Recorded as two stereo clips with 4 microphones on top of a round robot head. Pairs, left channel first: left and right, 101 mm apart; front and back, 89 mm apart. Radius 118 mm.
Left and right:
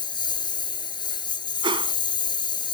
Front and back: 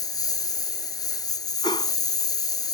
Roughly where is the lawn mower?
Ahead left.